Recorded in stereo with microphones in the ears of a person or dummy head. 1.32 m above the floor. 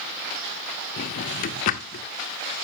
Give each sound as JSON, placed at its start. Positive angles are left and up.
{"t": 1.0, "sound": "a drawer", "side_deg": 50, "distance_m": 1.4}